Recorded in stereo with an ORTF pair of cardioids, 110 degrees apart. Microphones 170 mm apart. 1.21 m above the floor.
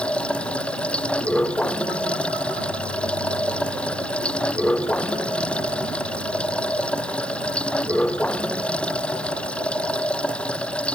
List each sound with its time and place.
0.0 s running water: 5° left